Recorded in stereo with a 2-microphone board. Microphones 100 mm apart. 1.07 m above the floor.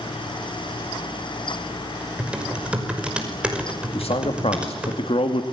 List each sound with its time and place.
2.2 s typing on a keyboard: 10° right (ahead or behind), 5.5 m
3.9 s a man speaking: 75° left (ahead or behind), 2.5 m